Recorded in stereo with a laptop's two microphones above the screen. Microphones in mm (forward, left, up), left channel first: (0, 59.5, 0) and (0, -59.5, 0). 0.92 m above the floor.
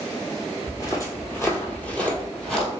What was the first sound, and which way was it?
Footsteps, 35° left (ahead or behind).